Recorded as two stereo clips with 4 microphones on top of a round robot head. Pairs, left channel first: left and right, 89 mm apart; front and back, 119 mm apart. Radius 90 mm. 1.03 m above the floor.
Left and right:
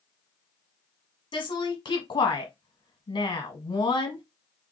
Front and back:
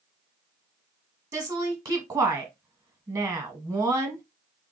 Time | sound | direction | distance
1.3 | a woman speaking | 120° left | 1.1 m